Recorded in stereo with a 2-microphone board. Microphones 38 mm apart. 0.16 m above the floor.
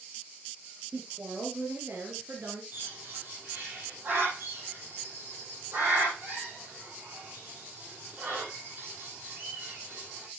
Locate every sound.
0.9 s a woman speaking: 60° right (ahead or behind), 3.5 m; by 2.6 s 65° right (ahead or behind), 3 m
2.7 s a bird: 55° right (ahead or behind), 6.5 m